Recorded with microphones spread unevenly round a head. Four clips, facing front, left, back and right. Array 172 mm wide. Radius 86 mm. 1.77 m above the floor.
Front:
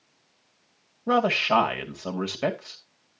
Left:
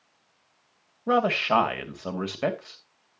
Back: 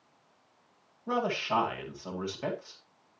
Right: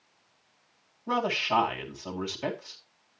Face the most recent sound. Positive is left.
turn(degrees=40)